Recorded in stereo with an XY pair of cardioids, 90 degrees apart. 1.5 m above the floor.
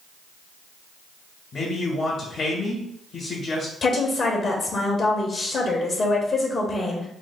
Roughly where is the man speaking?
Ahead left.